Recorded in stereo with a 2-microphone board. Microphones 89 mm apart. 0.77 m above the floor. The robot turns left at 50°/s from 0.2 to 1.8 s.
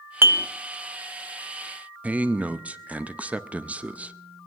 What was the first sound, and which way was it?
Dishes clattering, 25° right (ahead or behind).